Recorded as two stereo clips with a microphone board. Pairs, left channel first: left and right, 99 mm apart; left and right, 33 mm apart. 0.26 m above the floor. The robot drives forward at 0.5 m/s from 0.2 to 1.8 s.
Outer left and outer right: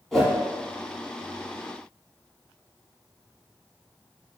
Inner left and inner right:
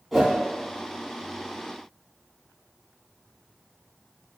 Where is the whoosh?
Centre (ahead or behind), 1.0 m.